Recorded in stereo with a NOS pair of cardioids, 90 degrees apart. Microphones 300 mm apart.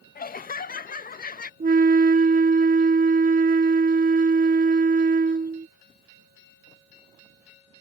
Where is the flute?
30° right.